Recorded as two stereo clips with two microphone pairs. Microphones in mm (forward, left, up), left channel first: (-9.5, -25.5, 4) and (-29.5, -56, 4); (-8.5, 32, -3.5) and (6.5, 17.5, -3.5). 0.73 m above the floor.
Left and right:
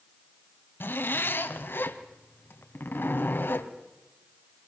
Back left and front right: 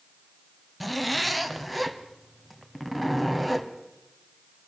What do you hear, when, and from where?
0.8 s a zipper: 55° left, 1.4 m